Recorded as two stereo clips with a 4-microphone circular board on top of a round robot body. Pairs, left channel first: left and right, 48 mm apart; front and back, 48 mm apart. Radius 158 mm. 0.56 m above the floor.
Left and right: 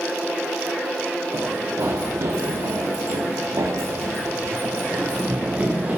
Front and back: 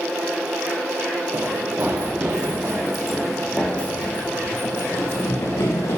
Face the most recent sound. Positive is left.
turn(degrees=-20)